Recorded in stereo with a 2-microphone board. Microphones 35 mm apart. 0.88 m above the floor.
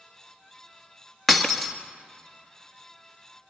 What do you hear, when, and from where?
1.3 s breaking glass: 10° left (ahead or behind), 1.4 m